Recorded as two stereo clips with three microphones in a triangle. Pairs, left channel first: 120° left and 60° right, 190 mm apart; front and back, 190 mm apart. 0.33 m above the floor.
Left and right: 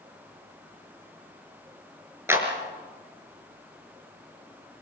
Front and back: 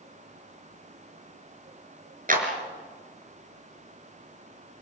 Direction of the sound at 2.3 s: 135° right.